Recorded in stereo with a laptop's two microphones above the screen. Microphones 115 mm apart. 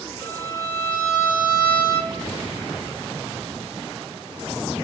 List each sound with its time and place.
0.2 s a violin: 35° right (ahead or behind), 0.6 m